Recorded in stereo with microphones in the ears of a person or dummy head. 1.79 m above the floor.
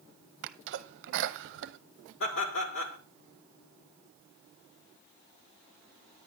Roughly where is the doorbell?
No doorbell in this recording.